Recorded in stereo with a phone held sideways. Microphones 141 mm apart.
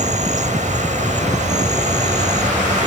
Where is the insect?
60° right (ahead or behind).